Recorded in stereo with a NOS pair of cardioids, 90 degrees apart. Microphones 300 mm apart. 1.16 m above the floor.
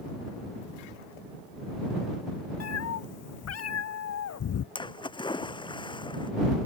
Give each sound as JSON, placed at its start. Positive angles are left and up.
{"t": 2.6, "sound": "a cat meowing", "azimuth_deg": 55}
{"t": 4.8, "sound": "a splash", "azimuth_deg": 15}